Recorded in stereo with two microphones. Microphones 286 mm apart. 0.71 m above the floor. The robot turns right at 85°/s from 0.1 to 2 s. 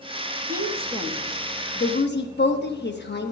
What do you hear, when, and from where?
0.5 s a woman speaking: 30° right (ahead or behind), 1.0 m; by 3.3 s 35° left (ahead or behind), 1.0 m